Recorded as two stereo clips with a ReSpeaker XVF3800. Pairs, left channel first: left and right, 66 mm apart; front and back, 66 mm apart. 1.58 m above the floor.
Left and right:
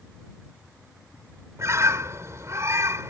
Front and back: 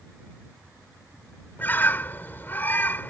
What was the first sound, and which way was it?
A bird, 55° right.